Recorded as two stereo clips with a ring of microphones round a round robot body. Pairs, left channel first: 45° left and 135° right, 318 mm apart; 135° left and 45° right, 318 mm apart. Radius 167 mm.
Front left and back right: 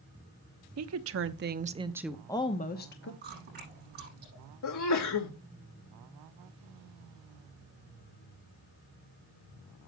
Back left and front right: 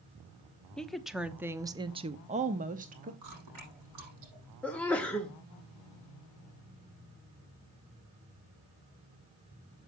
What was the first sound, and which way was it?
A woman speaking, 140° right.